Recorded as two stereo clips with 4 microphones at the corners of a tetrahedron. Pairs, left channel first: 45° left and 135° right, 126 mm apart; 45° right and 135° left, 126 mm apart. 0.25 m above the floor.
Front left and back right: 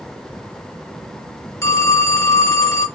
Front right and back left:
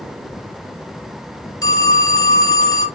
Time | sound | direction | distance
1.6 | a phone ringing | 5° right | 0.8 m